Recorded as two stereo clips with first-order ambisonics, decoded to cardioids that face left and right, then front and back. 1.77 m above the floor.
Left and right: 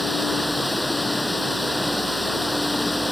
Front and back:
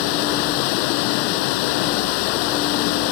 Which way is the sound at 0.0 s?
Straight ahead.